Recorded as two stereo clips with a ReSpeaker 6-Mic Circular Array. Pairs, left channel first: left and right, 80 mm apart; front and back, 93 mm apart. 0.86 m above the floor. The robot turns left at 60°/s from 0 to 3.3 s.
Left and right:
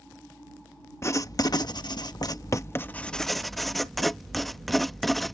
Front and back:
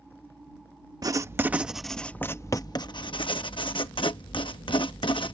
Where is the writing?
140° left; by 5.3 s straight ahead.